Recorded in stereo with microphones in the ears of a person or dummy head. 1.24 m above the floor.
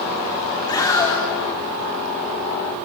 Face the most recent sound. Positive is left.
turn(degrees=20)  # may be behind; listen again after turning